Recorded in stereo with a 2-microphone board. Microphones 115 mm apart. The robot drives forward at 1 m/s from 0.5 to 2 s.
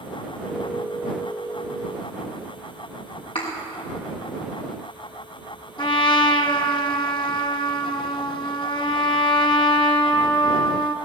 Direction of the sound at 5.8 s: 45° left (ahead or behind).